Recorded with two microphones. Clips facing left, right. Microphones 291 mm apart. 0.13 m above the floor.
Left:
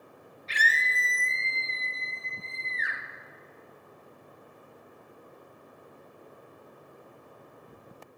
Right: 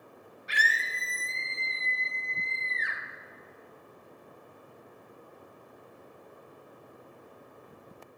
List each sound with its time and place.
0.5 s a scream: 15° right (ahead or behind), 2 m; by 3.0 s 15° left (ahead or behind), 2.5 m